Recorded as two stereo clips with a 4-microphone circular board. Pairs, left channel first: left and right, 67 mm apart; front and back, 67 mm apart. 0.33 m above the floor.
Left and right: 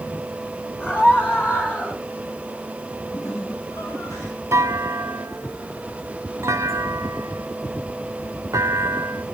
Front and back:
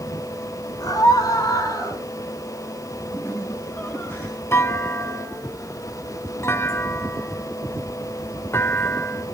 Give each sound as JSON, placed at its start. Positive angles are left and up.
{"t": 0.8, "sound": "a scream", "azimuth_deg": 25, "distance_m": 5.5}
{"t": 3.1, "sound": "laughter", "azimuth_deg": 60, "distance_m": 3.5}
{"t": 4.5, "sound": "a clunk", "azimuth_deg": -50, "distance_m": 0.6}